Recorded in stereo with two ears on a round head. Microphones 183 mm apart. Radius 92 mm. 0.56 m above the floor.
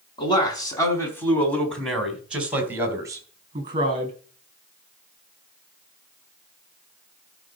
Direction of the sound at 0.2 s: 25° left (ahead or behind).